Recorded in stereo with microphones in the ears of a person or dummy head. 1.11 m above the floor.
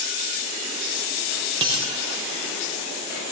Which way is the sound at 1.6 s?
20° right (ahead or behind).